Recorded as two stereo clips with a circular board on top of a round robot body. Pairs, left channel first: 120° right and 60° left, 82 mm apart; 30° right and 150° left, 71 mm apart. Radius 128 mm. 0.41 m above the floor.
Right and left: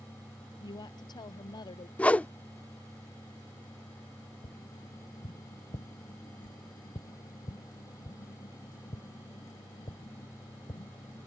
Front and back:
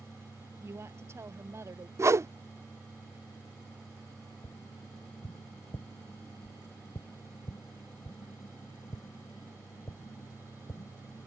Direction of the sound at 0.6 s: 155° right.